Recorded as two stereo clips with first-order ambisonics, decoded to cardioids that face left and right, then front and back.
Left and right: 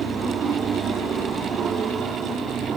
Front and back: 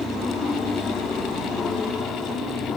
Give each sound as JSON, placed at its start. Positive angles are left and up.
{"t": 0.0, "sound": "an aircraft", "azimuth_deg": -65}